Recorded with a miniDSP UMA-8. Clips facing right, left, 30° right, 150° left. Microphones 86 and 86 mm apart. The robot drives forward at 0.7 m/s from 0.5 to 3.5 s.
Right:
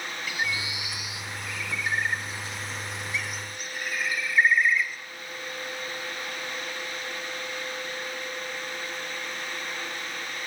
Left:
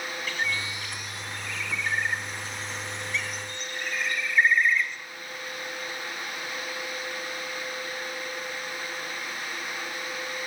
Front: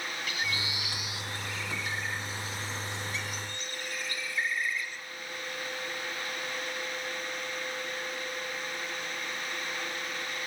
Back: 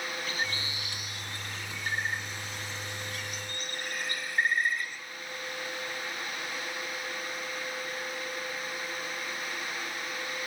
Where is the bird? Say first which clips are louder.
Even, even; 170° right, 1.9 m; by 5.0 s 175° right, 3.5 m.